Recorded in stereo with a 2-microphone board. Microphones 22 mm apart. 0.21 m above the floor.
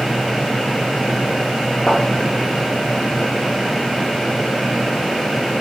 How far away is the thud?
About 1.8 m.